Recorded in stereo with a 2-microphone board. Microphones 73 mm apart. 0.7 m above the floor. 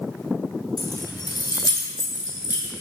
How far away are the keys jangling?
About 2.0 m.